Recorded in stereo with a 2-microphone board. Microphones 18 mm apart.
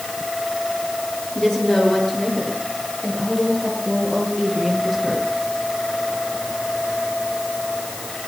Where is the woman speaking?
30° left (ahead or behind), 8 m; by 5.3 s 15° left (ahead or behind), 9 m.